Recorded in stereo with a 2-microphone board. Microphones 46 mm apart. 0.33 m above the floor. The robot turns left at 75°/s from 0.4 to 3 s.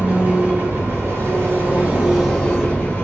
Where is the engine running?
35° right, 1.5 m; by 3.0 s 130° left, 1.5 m.